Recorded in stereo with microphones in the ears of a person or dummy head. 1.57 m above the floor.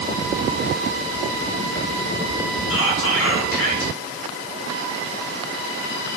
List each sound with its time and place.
2.7 s whispering: 80° left, 2 m